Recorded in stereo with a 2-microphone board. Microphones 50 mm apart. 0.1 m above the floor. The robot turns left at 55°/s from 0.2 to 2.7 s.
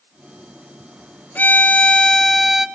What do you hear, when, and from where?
1.4 s a violin: 60° left, 1.1 m; by 2.7 s 10° right, 1.1 m